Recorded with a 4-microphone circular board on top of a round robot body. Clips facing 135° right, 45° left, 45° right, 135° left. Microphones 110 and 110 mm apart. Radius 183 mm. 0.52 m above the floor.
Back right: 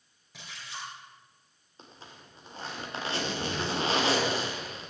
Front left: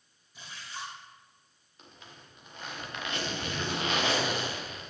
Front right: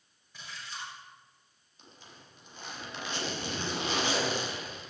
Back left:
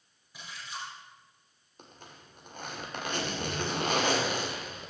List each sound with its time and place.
0.3 s a splash: 145° right, 4.5 m
1.8 s a zipper: 170° left, 3 m